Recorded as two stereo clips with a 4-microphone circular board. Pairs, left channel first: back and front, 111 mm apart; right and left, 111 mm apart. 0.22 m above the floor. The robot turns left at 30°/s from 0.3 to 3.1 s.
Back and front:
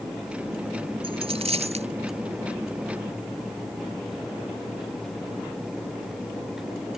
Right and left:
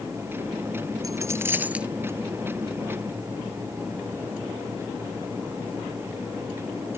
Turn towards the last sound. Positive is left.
turn(degrees=-25)